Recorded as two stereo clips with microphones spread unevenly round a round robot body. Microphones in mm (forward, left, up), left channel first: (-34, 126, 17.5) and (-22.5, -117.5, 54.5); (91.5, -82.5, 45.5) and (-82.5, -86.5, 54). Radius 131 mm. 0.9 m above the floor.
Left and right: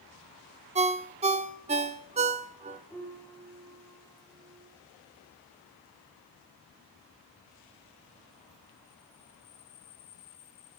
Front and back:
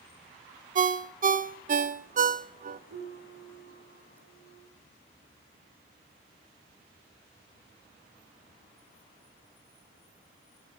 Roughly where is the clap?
No clap in this recording.